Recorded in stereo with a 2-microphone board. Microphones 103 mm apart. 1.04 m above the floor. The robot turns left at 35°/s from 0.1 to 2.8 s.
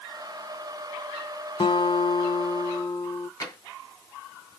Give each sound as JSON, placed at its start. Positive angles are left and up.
{"t": 1.6, "sound": "a guitar", "azimuth_deg": 75, "distance_m": 0.6}
{"t": 3.4, "sound": "tapping", "side_deg": 35, "distance_m": 2.0}